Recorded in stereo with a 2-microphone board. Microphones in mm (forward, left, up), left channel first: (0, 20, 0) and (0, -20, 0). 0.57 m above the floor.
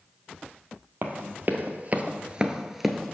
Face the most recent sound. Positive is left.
turn(degrees=10)  # may be behind; listen again after turning